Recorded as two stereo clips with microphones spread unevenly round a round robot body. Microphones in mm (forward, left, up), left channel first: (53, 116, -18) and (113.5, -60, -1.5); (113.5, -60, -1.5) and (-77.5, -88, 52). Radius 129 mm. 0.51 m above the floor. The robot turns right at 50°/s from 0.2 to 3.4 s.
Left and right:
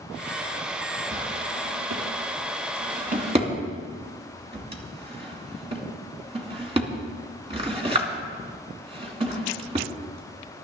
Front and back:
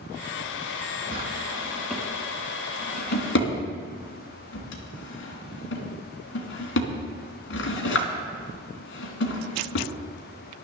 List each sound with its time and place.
1.1 s a drawer: 125° right, 3 m; by 10.6 s 10° right, 3 m